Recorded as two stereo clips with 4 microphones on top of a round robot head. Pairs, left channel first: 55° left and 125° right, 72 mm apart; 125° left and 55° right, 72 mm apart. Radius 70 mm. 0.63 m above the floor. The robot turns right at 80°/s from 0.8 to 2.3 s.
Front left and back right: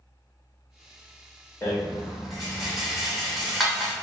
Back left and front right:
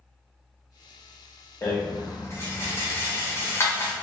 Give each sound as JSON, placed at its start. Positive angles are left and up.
{"t": 1.6, "sound": "a rattle", "azimuth_deg": 95, "distance_m": 1.0}